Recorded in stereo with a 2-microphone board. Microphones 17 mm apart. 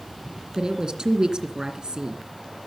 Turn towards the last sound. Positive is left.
turn(degrees=-60)  # may be behind; listen again after turning